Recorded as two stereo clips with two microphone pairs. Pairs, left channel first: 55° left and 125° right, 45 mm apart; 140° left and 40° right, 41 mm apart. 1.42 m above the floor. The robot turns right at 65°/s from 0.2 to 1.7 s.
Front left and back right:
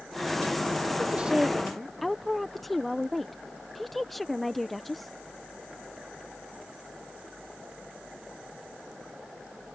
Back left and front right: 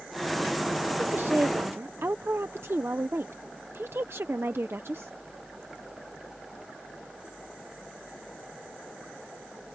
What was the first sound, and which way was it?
A woman speaking, 80° right.